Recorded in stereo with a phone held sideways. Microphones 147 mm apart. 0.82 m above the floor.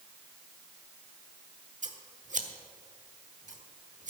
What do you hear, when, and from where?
1.8 s scissors: 55° right (ahead or behind), 1.2 m